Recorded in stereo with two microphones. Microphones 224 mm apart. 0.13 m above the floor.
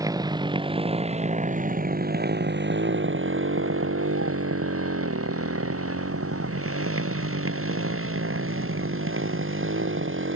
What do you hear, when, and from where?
0.0 s a motorcycle: 15° right (ahead or behind); by 10.4 s 60° right (ahead or behind)